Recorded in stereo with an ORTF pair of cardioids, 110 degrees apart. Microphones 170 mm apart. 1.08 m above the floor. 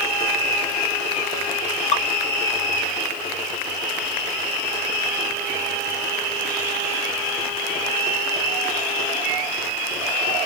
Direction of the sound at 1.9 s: 45° left.